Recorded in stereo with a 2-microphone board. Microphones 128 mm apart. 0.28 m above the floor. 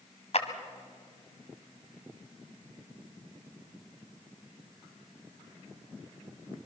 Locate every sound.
0.3 s a clap: 55° left (ahead or behind), 1.6 m